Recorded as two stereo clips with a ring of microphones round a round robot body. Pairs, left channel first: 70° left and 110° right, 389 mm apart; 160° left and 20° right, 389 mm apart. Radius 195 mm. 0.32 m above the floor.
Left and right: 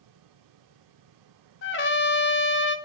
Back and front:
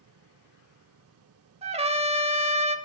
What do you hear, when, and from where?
1.6 s a trumpet: 40° left, 0.6 m